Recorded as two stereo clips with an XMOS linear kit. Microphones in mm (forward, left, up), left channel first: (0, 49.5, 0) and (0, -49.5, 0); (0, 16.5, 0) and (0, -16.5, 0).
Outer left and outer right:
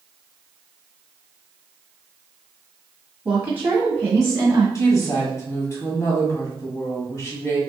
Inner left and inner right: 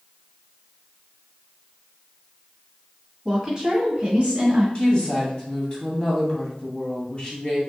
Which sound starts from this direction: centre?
A woman speaking, at 3.2 s.